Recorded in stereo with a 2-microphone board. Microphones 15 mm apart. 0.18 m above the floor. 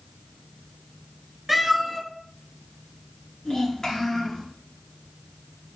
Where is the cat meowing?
10° right (ahead or behind), 1.3 m.